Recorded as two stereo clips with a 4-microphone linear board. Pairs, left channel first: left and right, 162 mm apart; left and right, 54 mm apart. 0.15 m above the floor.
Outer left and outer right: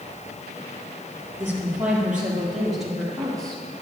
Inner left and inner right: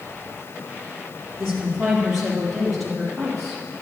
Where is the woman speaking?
10° right (ahead or behind), 3.5 m; by 3.8 s 5° left (ahead or behind), 5.5 m.